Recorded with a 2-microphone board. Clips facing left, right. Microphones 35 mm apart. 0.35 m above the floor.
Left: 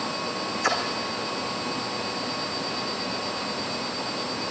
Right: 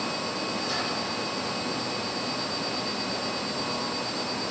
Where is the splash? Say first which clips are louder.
Left 9 dB; 80° left, 3.5 m.